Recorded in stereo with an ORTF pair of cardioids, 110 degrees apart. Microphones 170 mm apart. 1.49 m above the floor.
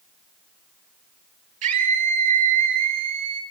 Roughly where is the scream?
Ahead right.